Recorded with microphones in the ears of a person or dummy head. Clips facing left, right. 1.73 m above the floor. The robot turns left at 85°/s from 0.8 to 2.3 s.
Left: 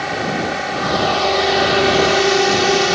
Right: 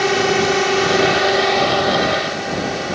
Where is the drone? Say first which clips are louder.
Right 5 dB; 125° right; by 2.9 s 105° left.